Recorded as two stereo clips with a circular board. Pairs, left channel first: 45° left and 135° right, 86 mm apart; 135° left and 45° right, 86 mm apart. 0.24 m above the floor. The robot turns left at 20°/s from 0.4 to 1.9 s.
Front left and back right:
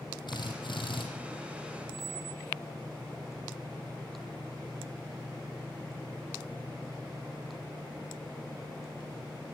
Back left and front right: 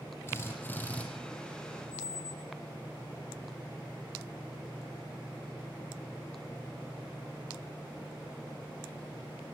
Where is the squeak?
165° left, 0.6 m.